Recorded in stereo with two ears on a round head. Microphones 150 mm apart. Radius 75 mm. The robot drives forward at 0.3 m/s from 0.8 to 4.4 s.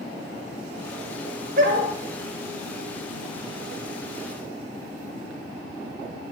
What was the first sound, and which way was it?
A dog barking, 55° right (ahead or behind).